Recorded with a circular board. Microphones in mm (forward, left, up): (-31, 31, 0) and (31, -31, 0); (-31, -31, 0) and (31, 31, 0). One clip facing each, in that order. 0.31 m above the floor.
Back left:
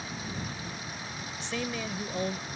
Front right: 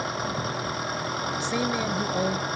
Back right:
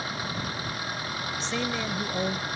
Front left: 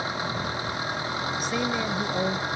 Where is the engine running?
20° right.